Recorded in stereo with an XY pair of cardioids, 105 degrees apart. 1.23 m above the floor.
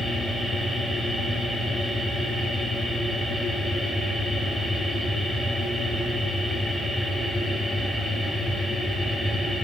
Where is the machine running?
15° right, 2.5 m.